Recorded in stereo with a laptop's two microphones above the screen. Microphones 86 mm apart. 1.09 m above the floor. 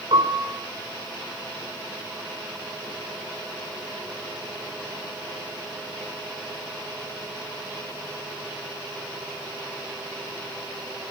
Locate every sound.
0.1 s a piano: 85° right, 3.5 m